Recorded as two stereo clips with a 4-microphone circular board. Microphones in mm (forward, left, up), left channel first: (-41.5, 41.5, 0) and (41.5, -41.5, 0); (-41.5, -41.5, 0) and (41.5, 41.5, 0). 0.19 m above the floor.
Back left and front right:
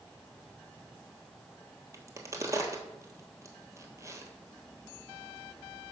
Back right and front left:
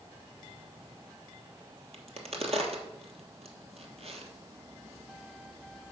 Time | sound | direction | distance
1.9 | a crack | 20° left | 1.2 m